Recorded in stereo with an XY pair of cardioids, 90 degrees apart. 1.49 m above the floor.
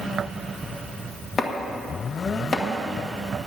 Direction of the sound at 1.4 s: 45° left.